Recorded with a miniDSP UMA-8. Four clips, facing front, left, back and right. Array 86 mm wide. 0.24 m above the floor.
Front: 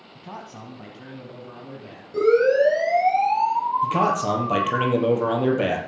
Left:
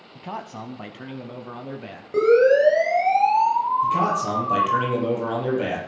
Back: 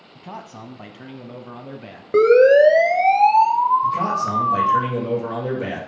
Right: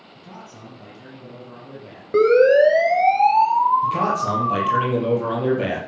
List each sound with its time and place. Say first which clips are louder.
0.1 s a man speaking: left 8 dB, back 2 dB; 100° left, 1.3 m; by 2.0 s 130° left, 1.9 m
2.1 s a siren: right 2 dB, back 6 dB; 160° right, 4 m; by 4.8 s 170° right, 3 m
3.8 s a man speaking: right 1 dB, even; 5° right, 6 m